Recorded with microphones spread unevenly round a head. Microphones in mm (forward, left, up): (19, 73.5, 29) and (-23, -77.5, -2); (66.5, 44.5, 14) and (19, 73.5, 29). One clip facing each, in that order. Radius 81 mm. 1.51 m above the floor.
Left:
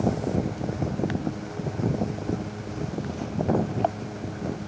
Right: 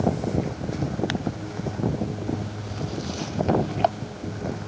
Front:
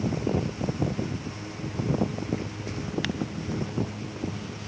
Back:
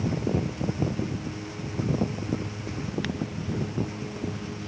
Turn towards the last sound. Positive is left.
No sound to turn to.